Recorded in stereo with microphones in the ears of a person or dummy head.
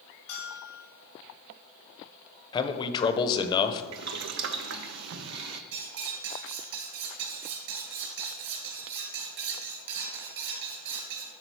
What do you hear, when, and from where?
0.3 s a bell: 45° left (ahead or behind), 3.5 m
2.5 s a man speaking: 30° left (ahead or behind), 0.7 m
3.9 s boiling: 60° right (ahead or behind), 0.6 m
5.7 s cutlery clinking: 70° right (ahead or behind), 4 m